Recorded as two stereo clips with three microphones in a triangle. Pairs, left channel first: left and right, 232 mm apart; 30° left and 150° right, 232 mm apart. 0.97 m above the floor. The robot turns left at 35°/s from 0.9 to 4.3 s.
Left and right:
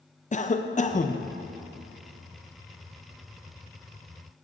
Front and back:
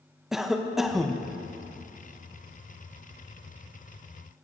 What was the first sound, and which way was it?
A cough, 125° left.